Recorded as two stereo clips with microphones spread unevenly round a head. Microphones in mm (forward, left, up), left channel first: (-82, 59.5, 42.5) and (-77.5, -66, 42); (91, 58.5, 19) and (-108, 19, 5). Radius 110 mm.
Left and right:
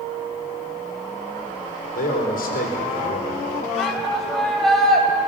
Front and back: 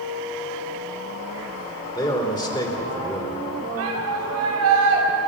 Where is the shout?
Straight behind, 7.5 m.